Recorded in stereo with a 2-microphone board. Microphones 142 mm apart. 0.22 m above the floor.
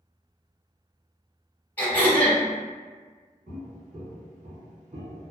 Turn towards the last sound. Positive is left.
turn(degrees=-45)  # may be behind; listen again after turning